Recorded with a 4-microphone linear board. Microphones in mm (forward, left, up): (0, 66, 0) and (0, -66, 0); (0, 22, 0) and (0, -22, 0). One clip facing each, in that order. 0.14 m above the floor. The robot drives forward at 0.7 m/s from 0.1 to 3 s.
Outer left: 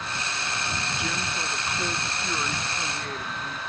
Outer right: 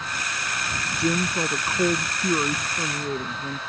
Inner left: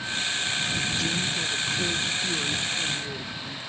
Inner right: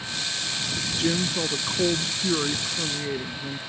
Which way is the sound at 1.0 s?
35° right (ahead or behind).